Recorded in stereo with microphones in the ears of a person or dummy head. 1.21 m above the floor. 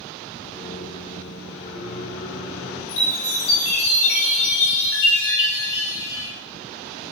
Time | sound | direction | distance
0.5 | a microwave | 65° left (ahead or behind) | 1.3 m
2.9 | a chime | 75° left (ahead or behind) | 1.1 m